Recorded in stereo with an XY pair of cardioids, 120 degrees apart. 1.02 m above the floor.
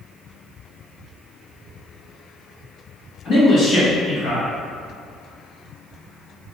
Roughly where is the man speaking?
Ahead left.